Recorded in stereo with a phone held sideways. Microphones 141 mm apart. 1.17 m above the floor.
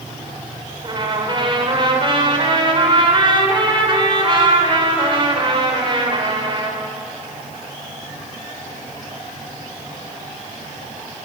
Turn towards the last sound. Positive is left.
turn(degrees=-35)  # may be behind; listen again after turning